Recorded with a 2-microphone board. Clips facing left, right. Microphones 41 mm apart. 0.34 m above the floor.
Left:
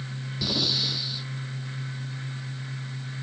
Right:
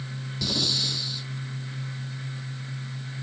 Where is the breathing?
10° left (ahead or behind).